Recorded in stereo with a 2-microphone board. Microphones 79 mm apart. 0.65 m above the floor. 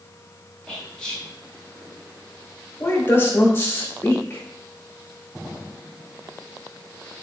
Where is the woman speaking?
30° left (ahead or behind), 0.9 m.